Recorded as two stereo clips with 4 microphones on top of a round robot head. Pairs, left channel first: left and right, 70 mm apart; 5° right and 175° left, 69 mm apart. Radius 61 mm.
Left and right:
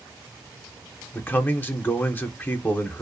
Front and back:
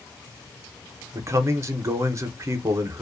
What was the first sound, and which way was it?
A man speaking, 145° left.